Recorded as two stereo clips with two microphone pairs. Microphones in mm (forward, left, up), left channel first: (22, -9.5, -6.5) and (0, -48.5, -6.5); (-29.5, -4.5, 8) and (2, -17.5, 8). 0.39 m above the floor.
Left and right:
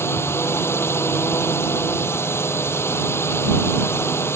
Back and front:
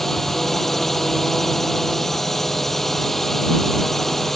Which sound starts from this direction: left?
A drone, at 0.0 s.